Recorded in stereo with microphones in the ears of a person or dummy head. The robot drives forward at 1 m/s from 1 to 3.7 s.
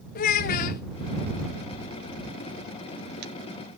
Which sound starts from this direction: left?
A child speaking, at 0.1 s.